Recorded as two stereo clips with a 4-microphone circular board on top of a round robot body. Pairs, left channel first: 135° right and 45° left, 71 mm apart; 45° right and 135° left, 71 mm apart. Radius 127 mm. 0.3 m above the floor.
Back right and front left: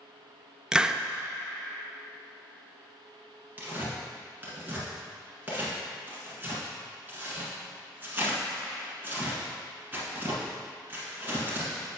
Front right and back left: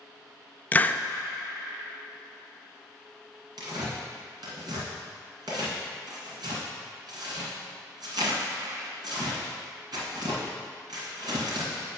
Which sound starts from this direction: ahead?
A hiss, at 0.7 s.